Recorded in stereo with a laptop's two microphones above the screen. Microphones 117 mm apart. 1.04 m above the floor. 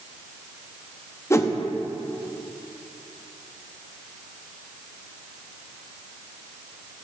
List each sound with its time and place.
1.3 s a whoosh: 25° left (ahead or behind), 0.6 m